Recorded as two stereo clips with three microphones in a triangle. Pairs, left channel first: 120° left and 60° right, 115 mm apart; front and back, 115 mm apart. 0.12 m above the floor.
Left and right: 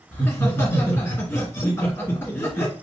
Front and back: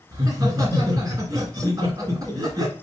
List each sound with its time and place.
0.1 s laughter: 170° left, 1.9 m